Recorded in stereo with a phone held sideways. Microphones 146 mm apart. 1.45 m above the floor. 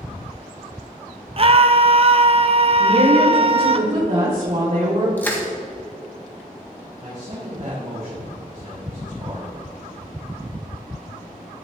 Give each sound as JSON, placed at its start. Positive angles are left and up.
{"t": 1.4, "sound": "a scream", "side_deg": -40, "distance_m": 0.7}
{"t": 2.8, "sound": "a woman speaking", "side_deg": -65, "distance_m": 3.5}
{"t": 5.2, "sound": "crushing", "side_deg": 15, "distance_m": 1.8}
{"t": 7.0, "sound": "a man speaking", "side_deg": -60, "distance_m": 4.0}